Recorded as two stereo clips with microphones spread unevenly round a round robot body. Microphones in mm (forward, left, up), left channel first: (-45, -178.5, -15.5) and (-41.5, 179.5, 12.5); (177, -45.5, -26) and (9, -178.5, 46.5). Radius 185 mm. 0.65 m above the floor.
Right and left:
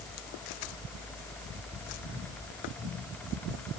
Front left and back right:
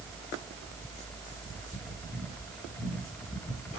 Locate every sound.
Only background noise.